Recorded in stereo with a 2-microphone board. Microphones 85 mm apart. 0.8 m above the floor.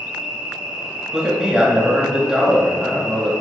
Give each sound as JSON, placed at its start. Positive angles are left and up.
{"t": 0.0, "sound": "an insect", "side_deg": -10, "distance_m": 1.2}
{"t": 1.1, "sound": "a man speaking", "side_deg": -10, "distance_m": 1.7}